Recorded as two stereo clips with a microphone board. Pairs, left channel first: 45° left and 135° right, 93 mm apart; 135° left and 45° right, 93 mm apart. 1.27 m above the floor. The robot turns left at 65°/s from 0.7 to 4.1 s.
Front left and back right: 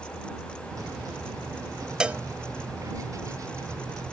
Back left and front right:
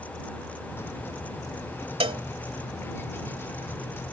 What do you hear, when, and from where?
2.0 s a cowbell: 55° right; by 2.2 s 70° right